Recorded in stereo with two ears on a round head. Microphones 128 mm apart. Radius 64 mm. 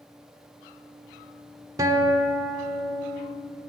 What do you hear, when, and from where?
1.8 s a guitar: 25° right (ahead or behind), 1.0 m